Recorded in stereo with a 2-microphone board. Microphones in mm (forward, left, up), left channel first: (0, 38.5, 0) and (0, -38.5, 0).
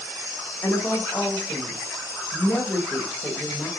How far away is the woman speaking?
About 2.5 m.